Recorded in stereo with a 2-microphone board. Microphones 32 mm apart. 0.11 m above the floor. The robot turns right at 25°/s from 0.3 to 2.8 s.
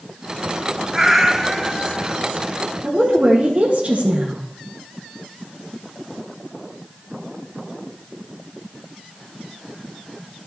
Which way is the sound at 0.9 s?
30° right.